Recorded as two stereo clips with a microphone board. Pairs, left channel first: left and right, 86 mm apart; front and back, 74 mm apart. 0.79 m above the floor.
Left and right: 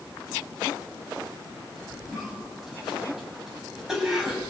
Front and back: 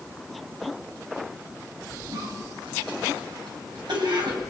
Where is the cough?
175° right, 7 m.